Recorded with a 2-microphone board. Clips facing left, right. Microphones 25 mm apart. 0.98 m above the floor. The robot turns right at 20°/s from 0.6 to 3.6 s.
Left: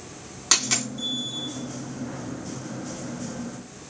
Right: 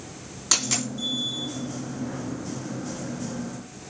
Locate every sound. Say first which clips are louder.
0.5 s a dropped coin: left 2 dB; 20° left (ahead or behind), 4 m; by 0.9 s 25° left (ahead or behind), 4 m